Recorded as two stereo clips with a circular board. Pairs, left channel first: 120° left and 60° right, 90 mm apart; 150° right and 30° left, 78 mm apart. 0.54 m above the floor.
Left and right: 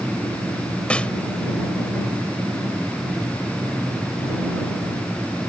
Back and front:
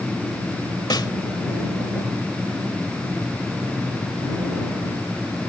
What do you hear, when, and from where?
0.9 s a snare drum: 165° right